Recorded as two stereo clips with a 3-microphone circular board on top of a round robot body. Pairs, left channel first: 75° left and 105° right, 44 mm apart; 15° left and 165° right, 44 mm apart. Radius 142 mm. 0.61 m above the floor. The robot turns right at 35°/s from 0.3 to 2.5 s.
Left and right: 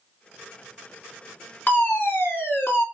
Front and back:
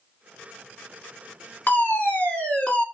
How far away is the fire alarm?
About 2.5 m.